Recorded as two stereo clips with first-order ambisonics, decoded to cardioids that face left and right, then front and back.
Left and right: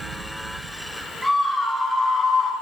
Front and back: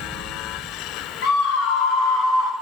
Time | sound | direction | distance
1.2 | a scream | 5° right | 1.9 m